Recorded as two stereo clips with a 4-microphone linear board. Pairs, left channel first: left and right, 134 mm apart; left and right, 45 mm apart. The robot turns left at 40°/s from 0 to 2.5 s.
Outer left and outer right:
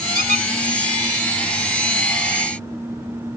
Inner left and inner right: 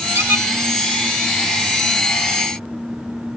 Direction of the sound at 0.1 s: 90° right.